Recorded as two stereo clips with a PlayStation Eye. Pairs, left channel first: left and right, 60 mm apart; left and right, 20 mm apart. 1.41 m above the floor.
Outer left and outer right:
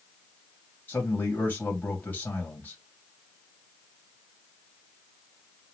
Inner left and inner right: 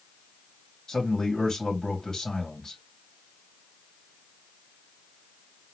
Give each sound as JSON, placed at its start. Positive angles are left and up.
{"t": 0.9, "sound": "a man speaking", "side_deg": 30, "distance_m": 2.5}